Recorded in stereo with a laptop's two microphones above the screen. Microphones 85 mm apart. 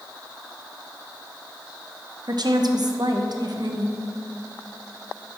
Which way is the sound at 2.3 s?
60° right (ahead or behind).